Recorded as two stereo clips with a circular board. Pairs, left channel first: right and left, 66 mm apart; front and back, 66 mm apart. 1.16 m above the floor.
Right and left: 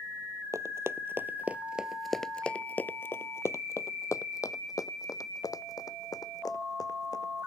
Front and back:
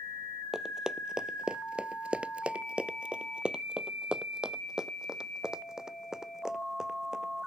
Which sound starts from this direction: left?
Running footsteps, at 0.5 s.